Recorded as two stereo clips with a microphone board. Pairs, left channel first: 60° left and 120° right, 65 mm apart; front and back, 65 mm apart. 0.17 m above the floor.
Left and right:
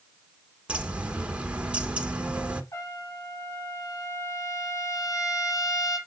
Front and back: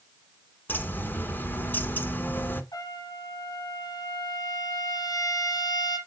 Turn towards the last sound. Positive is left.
turn(degrees=20)